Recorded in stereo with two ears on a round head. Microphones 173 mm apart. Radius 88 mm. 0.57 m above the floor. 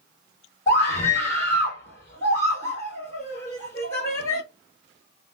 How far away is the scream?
About 1.4 m.